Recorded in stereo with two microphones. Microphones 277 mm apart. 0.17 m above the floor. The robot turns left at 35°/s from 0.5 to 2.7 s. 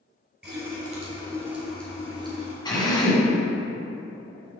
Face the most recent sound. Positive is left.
turn(degrees=15)  # may be behind; listen again after turning